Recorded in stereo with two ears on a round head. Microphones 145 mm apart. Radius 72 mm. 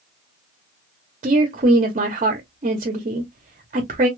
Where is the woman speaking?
45° right (ahead or behind), 0.9 m.